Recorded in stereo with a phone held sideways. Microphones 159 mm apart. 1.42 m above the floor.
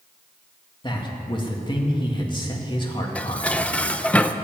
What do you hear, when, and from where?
0.8 s a man speaking: 30° left (ahead or behind), 2 m
3.1 s dishes clattering: 5° left (ahead or behind), 0.5 m